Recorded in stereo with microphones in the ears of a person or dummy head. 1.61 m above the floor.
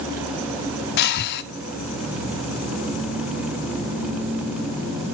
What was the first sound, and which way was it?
Breathing, 65° left (ahead or behind).